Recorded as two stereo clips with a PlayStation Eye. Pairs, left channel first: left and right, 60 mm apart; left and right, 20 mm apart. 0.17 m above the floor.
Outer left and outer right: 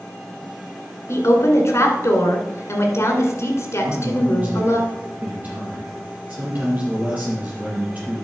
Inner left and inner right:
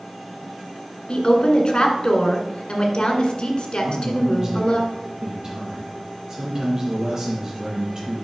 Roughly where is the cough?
No cough in this recording.